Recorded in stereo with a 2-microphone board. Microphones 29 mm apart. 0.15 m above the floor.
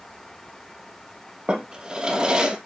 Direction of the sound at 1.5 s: 30° right (ahead or behind).